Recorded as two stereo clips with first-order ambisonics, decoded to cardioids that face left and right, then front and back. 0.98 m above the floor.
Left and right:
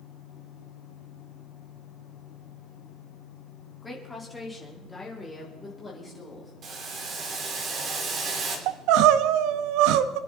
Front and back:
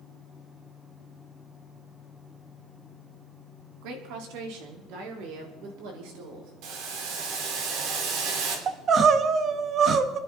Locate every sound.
3.8 s a woman speaking: 170° left, 2.5 m
6.6 s boiling: 150° right, 3 m
8.7 s crying: 115° right, 0.8 m